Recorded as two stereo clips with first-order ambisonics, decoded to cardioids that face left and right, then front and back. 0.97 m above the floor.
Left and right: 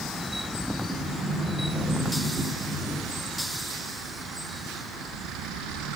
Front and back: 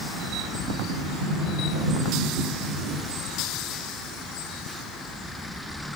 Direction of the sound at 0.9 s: 175° right.